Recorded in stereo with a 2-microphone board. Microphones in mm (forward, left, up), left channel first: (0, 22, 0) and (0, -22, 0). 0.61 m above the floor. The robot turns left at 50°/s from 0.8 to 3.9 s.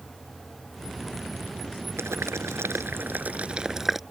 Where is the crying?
No crying in this recording.